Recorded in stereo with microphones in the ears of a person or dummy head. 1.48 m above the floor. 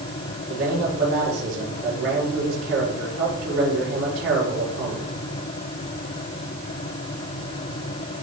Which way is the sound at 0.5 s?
65° right (ahead or behind).